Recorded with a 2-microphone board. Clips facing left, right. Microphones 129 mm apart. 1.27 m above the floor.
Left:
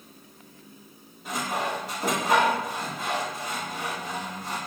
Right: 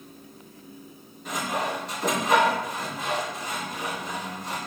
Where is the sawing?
5° left (ahead or behind), 1.9 m.